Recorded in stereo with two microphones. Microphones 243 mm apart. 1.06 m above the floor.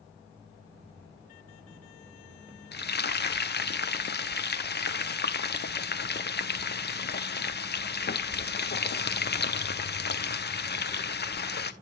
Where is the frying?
40° left (ahead or behind), 0.6 m.